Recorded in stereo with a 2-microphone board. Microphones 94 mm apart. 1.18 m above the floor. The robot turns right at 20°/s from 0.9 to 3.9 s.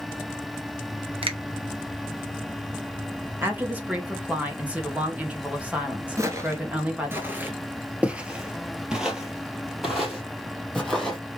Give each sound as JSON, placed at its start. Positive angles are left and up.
{"t": 1.2, "sound": "a finger snap", "side_deg": -75, "distance_m": 1.0}
{"t": 3.4, "sound": "a woman speaking", "side_deg": -25, "distance_m": 1.9}
{"t": 6.2, "sound": "footsteps", "side_deg": -35, "distance_m": 1.3}